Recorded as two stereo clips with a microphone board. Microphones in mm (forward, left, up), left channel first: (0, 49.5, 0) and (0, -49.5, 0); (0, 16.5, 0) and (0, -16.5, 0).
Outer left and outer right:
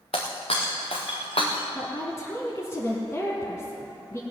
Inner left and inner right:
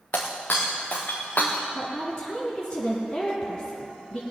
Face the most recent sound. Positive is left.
turn(degrees=25)  # may be behind; listen again after turning